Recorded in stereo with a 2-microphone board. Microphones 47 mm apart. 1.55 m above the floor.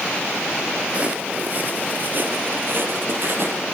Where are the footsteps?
30° right (ahead or behind), 2 m; by 3.6 s 55° right (ahead or behind), 3.5 m.